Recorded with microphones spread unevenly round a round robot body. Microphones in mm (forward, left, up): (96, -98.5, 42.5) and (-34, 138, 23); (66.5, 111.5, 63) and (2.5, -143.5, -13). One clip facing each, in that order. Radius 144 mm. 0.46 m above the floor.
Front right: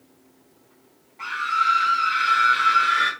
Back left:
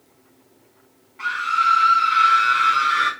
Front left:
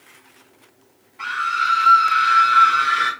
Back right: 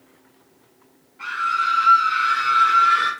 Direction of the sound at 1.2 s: 60° left.